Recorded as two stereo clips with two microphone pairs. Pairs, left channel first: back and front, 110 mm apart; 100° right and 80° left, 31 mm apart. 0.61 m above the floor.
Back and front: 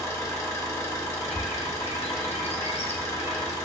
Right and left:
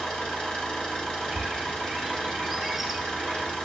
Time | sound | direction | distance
0.0 | an engine running | 135° right | 1.0 m
1.2 | a bird | 160° left | 0.6 m